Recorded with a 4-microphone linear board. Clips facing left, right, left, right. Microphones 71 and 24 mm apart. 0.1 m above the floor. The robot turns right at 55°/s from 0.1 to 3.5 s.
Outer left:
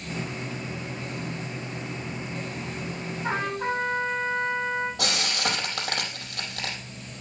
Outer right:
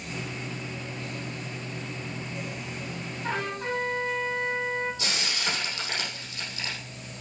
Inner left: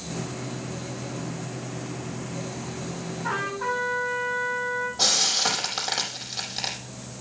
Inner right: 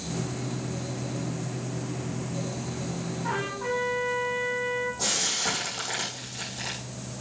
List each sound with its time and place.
3.2 s a trumpet: 15° left (ahead or behind), 3.5 m; by 4.9 s 30° left (ahead or behind), 3.5 m
5.0 s frying: 55° left (ahead or behind), 5 m